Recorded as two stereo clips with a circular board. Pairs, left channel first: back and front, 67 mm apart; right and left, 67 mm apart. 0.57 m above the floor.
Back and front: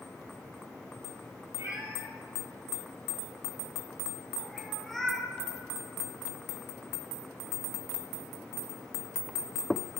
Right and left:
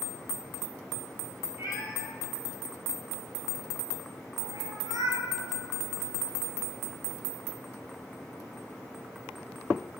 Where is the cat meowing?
40° left, 3.5 m; by 5.3 s 100° left, 2.5 m.